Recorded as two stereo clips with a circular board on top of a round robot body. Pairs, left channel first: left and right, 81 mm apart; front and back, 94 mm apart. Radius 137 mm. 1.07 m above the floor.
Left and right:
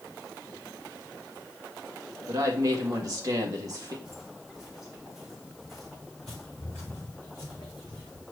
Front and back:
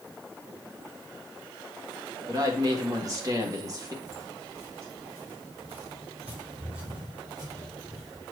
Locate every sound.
2.3 s a woman speaking: 130° right, 1.6 m
4.0 s footsteps: 170° right, 3 m; by 8.2 s 100° left, 1.3 m